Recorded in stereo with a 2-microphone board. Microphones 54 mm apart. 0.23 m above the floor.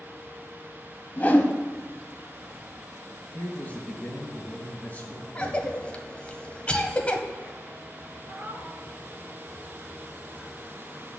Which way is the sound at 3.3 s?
25° left (ahead or behind).